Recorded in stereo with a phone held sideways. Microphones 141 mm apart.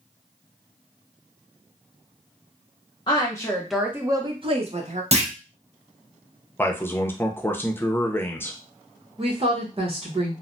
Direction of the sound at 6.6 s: 15° left (ahead or behind).